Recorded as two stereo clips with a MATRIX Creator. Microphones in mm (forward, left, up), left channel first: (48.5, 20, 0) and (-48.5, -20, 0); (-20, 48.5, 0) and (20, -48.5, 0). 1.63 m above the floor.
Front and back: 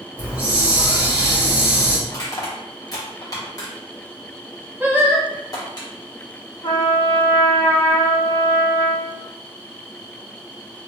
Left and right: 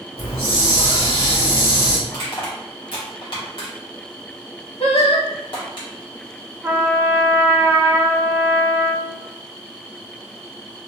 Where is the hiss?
130° left, 1.8 m.